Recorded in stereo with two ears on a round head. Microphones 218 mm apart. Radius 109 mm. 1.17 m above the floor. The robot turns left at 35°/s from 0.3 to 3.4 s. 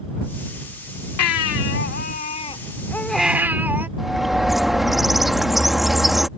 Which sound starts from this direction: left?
A baby crying, at 1.2 s.